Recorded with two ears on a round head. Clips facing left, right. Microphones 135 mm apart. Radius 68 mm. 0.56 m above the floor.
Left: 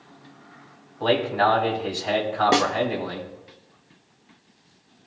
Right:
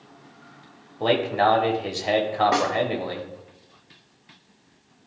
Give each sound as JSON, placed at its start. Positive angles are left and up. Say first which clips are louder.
{"t": 1.0, "sound": "a man speaking", "louder": "even", "side_deg": -20, "distance_m": 1.4}
{"t": 2.5, "sound": "a snare drum", "louder": "left 2 dB", "side_deg": 35, "distance_m": 0.7}